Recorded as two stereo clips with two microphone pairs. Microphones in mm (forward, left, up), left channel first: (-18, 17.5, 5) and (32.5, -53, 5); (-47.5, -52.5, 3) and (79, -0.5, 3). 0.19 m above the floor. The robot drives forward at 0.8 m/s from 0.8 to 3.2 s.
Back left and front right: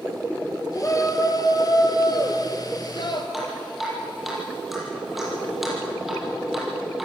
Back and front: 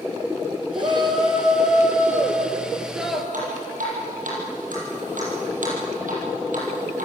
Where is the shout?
75° left, 3 m; by 3.2 s 110° left, 3 m.